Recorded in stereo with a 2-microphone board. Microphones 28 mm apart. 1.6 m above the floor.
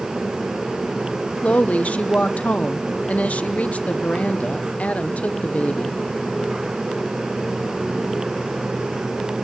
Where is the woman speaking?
60° left (ahead or behind), 0.9 m.